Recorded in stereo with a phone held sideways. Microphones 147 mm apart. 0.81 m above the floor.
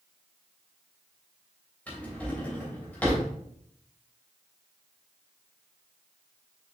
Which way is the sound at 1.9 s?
10° left (ahead or behind).